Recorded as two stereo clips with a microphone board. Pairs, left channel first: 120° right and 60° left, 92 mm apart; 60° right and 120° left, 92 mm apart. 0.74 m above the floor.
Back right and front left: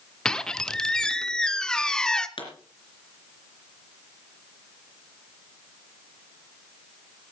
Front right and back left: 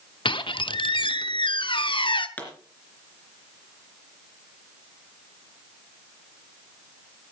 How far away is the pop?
About 3 m.